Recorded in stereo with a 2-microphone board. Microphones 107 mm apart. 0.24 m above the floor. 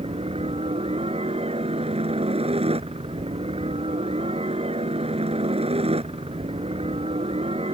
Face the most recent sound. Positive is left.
turn(degrees=-70)  # may be behind; listen again after turning